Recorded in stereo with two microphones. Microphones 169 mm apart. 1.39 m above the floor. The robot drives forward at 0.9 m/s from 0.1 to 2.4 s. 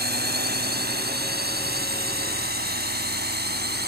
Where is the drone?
80° right.